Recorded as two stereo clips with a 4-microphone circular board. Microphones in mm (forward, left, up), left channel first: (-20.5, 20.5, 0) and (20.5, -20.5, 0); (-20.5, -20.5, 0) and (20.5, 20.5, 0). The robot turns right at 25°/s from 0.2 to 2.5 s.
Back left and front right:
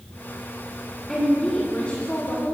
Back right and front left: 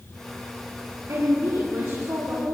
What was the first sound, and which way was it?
A woman speaking, 55° left.